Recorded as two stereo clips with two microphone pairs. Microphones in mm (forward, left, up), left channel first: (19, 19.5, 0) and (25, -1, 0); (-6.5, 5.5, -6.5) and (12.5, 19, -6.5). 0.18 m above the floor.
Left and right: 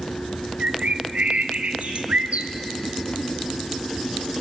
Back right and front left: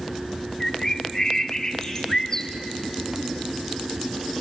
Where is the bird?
85° right, 1.5 m.